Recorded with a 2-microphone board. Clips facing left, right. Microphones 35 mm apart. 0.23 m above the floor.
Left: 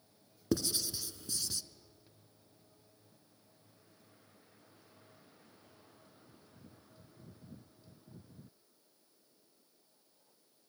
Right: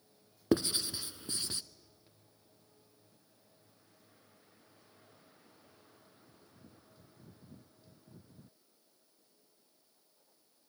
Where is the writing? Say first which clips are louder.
Right 4 dB; 35° right (ahead or behind), 0.5 m.